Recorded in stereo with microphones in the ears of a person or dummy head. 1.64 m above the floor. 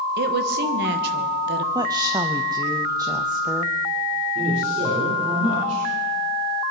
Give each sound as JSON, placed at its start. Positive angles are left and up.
{"t": 0.2, "sound": "a woman speaking", "side_deg": -60, "distance_m": 1.4}
{"t": 1.8, "sound": "a woman speaking", "side_deg": -20, "distance_m": 0.6}
{"t": 4.3, "sound": "a man speaking", "side_deg": -40, "distance_m": 5.5}